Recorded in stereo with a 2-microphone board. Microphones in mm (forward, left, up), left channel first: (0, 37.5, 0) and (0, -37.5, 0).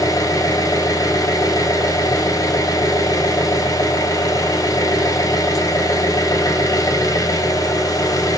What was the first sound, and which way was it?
An engine running, 50° left (ahead or behind).